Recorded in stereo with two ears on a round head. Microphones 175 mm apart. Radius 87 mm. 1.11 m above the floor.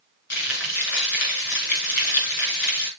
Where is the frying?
60° left (ahead or behind), 5.5 m.